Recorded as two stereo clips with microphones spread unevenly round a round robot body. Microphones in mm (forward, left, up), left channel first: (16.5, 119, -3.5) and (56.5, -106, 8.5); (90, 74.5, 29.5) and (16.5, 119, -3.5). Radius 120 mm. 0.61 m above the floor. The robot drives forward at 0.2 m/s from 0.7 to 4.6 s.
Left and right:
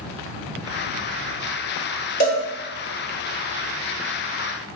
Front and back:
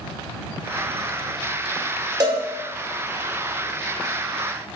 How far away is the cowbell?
About 2 m.